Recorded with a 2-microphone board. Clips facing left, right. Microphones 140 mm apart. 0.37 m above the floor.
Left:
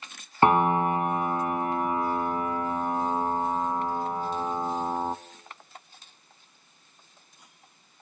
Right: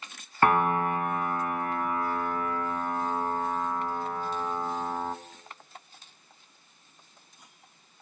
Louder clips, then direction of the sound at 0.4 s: Left 3 dB; 20° left (ahead or behind).